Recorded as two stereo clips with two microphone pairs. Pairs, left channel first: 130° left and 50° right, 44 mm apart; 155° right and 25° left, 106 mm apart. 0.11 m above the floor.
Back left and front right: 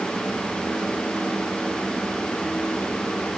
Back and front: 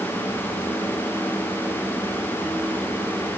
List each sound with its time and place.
Only background noise.